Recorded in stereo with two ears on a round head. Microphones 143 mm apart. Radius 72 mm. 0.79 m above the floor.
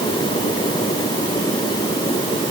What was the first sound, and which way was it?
Only background noise.